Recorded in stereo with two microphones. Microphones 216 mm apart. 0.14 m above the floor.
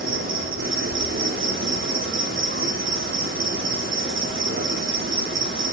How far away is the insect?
About 0.7 m.